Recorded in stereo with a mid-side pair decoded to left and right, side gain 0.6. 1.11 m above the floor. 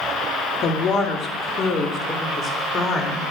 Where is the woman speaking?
45° left, 2 m; by 3.2 s 30° left, 3.5 m.